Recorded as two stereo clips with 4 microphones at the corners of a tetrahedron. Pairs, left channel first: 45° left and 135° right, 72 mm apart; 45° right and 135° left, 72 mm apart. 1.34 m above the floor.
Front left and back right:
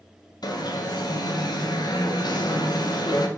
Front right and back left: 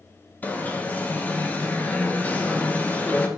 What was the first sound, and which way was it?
An alarm, 20° left.